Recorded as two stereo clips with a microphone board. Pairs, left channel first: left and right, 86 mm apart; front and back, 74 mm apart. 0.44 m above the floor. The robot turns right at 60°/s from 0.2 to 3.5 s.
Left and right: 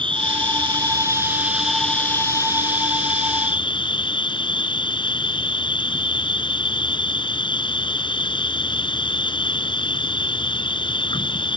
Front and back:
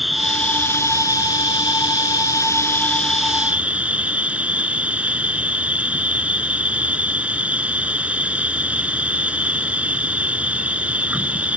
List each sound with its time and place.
0.0 s an insect: 90° right; by 11.6 s 105° left